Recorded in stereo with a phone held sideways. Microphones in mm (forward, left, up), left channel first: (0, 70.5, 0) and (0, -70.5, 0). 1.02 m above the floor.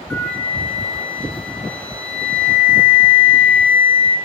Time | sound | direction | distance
0.1 | a flute | 10° left (ahead or behind) | 1.0 m